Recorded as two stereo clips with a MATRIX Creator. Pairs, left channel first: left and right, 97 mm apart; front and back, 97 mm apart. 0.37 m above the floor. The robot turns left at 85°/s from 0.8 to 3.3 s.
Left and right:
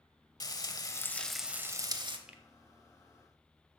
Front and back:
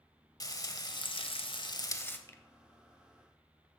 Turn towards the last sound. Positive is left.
turn(degrees=-110)